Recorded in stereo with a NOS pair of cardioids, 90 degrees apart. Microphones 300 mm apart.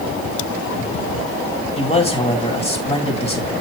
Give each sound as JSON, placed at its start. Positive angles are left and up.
{"t": 1.8, "sound": "a man speaking", "azimuth_deg": 20, "distance_m": 3.0}